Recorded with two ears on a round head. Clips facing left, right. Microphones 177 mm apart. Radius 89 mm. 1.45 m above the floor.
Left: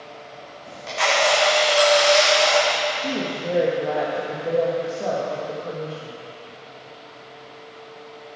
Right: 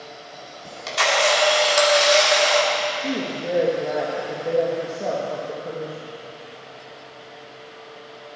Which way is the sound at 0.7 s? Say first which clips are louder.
Even; 80° right.